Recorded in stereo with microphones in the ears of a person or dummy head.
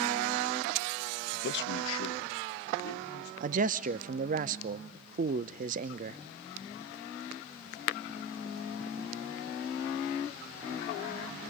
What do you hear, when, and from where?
1.3 s a man speaking: 40° left (ahead or behind), 0.5 m; by 3.3 s 80° left, 3.5 m
3.4 s a man speaking: 40° right (ahead or behind), 0.6 m